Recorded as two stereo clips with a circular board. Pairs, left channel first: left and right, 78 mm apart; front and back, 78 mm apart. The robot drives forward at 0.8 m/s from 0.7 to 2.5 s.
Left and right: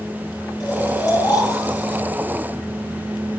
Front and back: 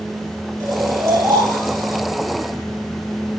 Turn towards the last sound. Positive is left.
turn(degrees=135)